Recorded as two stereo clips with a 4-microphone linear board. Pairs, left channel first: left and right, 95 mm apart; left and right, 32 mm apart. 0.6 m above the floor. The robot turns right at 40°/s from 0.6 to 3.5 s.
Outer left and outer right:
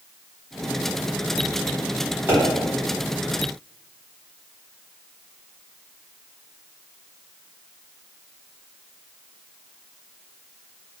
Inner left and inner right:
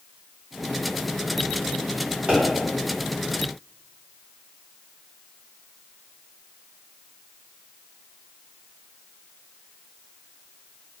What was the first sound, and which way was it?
A pop, 25° right (ahead or behind).